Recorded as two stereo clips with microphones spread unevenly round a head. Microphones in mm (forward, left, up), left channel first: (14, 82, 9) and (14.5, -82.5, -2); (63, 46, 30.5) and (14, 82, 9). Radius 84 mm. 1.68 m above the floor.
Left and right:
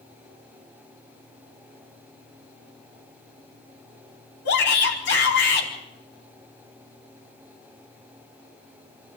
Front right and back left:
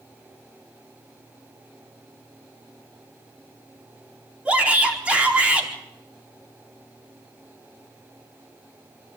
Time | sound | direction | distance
4.5 | a shout | 70° left | 4.5 m